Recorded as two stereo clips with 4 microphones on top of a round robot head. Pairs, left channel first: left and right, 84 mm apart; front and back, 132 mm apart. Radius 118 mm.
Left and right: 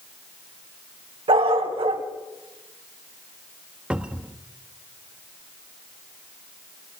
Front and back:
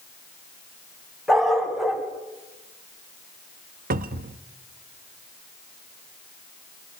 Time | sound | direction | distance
1.3 | a dog barking | 90° right | 2.5 m
3.9 | a cupboard door | 170° right | 1.0 m